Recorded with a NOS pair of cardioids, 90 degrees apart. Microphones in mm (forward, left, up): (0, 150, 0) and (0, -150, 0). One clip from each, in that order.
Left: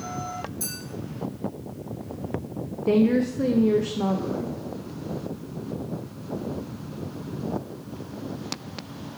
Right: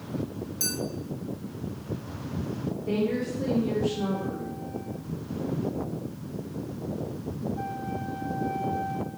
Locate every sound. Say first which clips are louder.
0.6 s a clink: right 4 dB; 35° right, 1.6 m
2.9 s a woman speaking: left 7 dB; 35° left, 0.5 m